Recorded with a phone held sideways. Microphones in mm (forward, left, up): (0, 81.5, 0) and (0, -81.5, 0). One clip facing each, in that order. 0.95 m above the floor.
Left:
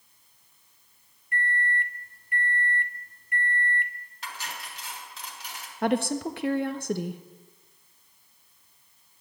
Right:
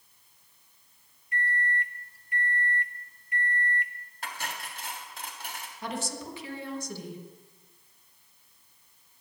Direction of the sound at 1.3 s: 55° left (ahead or behind).